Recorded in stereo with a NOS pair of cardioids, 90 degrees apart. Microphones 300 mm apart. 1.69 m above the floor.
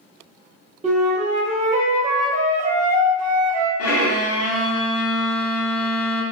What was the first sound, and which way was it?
A flute, 25° right.